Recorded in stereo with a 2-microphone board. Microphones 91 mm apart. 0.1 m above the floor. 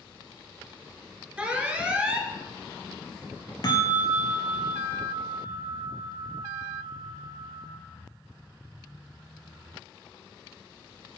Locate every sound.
1.4 s an alarm: 15° right (ahead or behind), 1.1 m
3.6 s a bell: 50° left (ahead or behind), 1.0 m